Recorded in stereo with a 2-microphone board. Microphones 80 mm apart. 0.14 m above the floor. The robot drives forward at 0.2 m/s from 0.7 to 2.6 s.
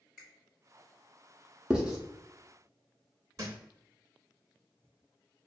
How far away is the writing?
About 0.7 m.